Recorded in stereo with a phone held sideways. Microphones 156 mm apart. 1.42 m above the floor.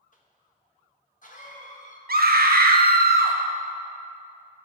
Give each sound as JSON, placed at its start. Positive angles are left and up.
{"t": 0.1, "sound": "a cough", "side_deg": 55, "distance_m": 1.4}
{"t": 2.1, "sound": "a scream", "side_deg": -75, "distance_m": 0.7}